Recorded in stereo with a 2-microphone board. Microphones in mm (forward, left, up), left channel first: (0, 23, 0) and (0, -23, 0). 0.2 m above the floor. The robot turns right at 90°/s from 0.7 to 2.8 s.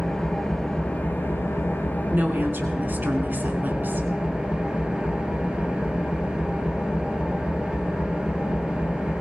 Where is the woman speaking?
125° right, 2.5 m; by 4.1 s 65° right, 2.5 m.